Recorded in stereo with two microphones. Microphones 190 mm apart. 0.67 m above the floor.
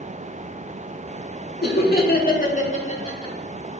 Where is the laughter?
60° left (ahead or behind), 1.8 m; by 3.4 s 20° left (ahead or behind), 1.3 m.